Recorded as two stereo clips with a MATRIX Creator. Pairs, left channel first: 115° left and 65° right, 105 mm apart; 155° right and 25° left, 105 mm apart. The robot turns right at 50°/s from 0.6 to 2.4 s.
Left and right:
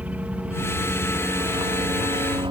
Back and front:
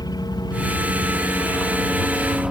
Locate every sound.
0.0 s a helicopter: 135° right; by 2.5 s 60° right